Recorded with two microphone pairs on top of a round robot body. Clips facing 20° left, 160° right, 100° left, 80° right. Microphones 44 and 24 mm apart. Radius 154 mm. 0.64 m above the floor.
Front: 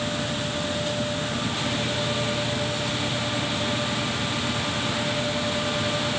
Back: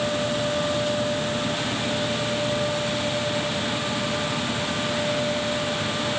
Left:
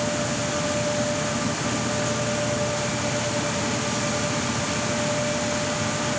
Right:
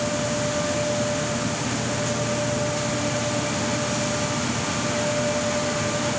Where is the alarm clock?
No alarm clock in this recording.